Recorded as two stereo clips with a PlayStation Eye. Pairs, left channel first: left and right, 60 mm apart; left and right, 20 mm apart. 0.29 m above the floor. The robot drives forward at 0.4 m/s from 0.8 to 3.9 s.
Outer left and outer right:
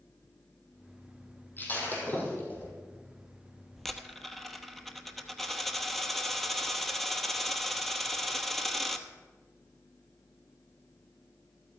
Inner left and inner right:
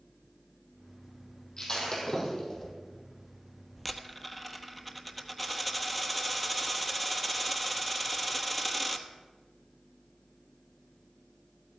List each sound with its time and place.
1.6 s breaking glass: 35° left (ahead or behind), 4.5 m; by 2.7 s 30° left (ahead or behind), 5 m
3.8 s a dropped coin: 5° left (ahead or behind), 0.9 m